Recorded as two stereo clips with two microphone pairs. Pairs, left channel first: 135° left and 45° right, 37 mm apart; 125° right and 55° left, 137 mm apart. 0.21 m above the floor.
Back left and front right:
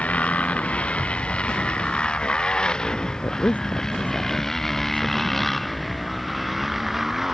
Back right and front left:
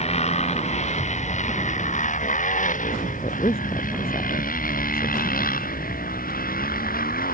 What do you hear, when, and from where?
0.0 s a motorcycle: 170° right; by 7.3 s 125° right
3.2 s a woman speaking: 175° right